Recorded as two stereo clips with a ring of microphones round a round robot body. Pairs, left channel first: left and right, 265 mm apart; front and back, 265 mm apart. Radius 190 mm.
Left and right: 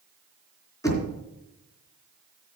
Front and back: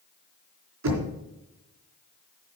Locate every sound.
0.8 s knocking: 170° left, 3.5 m